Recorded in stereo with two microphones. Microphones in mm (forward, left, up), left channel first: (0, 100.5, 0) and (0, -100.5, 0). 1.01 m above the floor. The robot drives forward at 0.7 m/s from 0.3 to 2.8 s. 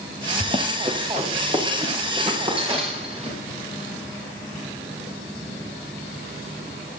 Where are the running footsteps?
35° right (ahead or behind), 2.5 m; by 3.3 s 25° right (ahead or behind), 8.5 m.